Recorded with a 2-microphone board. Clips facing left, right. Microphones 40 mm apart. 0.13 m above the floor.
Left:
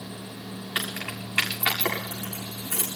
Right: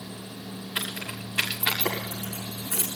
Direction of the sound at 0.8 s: 65° left (ahead or behind).